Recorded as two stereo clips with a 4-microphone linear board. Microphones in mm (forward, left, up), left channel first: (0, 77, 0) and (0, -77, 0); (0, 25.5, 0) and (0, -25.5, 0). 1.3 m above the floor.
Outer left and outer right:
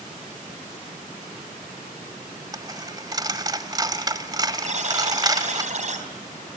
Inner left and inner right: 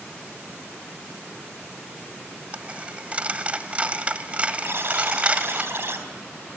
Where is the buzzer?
55° right (ahead or behind), 3.5 m.